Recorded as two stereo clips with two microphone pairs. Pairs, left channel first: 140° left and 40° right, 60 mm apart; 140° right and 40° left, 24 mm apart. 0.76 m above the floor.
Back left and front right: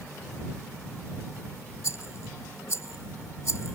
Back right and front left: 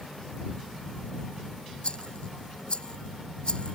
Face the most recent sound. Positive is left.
turn(degrees=175)